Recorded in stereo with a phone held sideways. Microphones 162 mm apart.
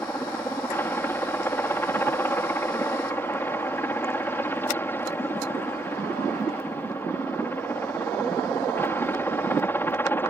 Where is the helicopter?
10° left (ahead or behind).